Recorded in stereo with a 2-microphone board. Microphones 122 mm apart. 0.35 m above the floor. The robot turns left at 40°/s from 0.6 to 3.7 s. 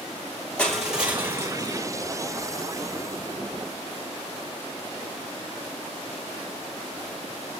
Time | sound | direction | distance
0.6 | crushing | 10° left | 2 m